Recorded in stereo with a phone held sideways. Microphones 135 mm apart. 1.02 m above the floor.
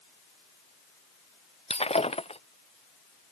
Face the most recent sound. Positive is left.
turn(degrees=50)  # may be behind; listen again after turning